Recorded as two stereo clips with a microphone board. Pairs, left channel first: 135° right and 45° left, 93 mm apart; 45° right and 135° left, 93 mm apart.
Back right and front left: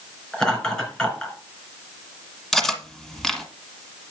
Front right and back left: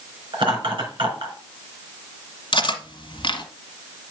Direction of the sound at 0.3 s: 140° left.